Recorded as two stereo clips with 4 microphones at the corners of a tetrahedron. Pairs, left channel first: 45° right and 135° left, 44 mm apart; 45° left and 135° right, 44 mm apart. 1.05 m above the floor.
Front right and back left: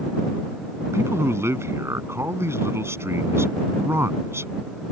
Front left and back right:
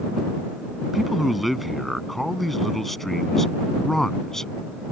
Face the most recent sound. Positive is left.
turn(degrees=120)